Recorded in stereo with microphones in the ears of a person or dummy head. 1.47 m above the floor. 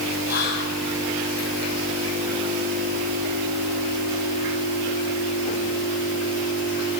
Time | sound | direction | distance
0.3 | whispering | 50° left (ahead or behind) | 1.5 m